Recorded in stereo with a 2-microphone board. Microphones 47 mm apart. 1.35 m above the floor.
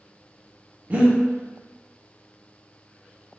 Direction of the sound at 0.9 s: 35° right (ahead or behind).